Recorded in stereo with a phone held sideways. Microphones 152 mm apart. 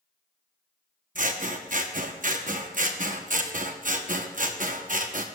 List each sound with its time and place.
1.1 s scissors: 60° right (ahead or behind), 0.8 m